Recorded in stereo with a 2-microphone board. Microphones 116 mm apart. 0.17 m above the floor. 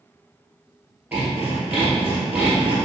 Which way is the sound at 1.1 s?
15° right (ahead or behind).